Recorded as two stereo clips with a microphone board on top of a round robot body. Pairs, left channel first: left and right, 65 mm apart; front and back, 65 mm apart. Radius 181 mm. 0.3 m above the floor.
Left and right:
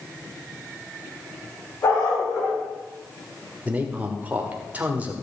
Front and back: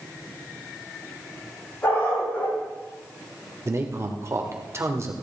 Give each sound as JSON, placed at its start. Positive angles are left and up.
{"t": 1.8, "sound": "a dog barking", "azimuth_deg": 55, "distance_m": 6.5}
{"t": 3.6, "sound": "a man speaking", "azimuth_deg": -150, "distance_m": 2.0}